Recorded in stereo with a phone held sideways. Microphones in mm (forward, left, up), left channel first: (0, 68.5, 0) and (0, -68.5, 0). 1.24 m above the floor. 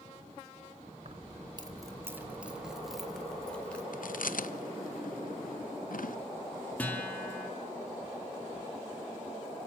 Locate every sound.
1.1 s keys jangling: 50° right (ahead or behind), 1.9 m; by 3.8 s 10° left (ahead or behind), 4 m
3.9 s chewing: 80° left, 0.7 m
6.8 s a guitar: 10° left (ahead or behind), 6 m